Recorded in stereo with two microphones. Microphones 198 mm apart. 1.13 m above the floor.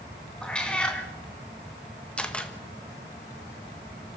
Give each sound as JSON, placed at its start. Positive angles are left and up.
{"t": 0.4, "sound": "a cat meowing", "side_deg": 5, "distance_m": 3.0}
{"t": 2.2, "sound": "a camera shutter", "side_deg": 5, "distance_m": 1.5}